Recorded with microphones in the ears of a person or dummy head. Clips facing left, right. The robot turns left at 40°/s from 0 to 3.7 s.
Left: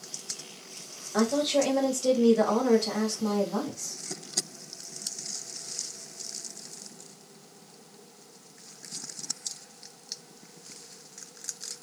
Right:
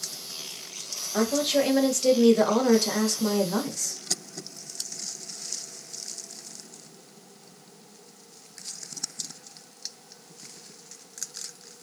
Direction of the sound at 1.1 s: 5° left.